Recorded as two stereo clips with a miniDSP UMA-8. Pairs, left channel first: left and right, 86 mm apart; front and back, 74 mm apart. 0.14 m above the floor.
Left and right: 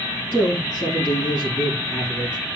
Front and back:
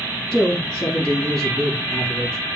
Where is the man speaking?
80° left, 1.1 m.